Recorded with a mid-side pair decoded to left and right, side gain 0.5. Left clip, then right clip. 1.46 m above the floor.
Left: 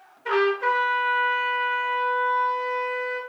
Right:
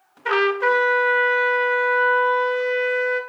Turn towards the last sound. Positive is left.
turn(degrees=-45)